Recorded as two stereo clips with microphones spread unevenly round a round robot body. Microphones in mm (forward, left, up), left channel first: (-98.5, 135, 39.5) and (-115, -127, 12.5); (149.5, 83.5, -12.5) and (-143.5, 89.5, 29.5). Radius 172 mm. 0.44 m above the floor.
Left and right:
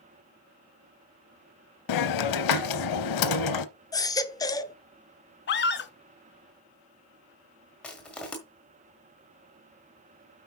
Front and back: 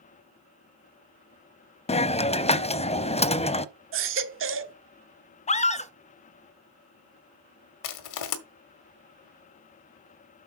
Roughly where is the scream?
Ahead left.